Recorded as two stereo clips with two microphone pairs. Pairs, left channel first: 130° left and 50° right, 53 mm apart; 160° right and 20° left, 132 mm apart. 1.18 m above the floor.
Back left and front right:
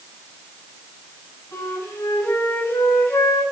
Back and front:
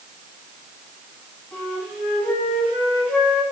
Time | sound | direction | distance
1.5 | a flute | 120° left | 6.5 m